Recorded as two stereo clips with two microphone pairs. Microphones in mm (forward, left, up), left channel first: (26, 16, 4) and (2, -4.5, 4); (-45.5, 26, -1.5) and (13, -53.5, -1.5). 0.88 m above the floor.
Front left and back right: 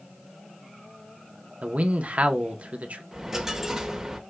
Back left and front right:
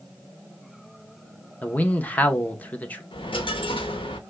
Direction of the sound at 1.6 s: 165° right.